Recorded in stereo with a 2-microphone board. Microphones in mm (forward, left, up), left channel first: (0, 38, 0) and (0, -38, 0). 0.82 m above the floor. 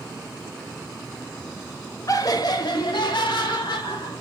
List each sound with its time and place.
2.1 s laughter: 45° left (ahead or behind), 0.7 m; by 4.2 s 80° left, 1.8 m